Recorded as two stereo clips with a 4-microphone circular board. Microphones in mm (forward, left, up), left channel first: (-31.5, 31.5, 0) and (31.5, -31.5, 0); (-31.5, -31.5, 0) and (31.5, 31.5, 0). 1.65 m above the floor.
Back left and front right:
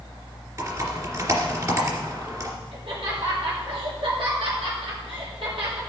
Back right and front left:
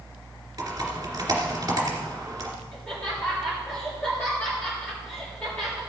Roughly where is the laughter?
Ahead right.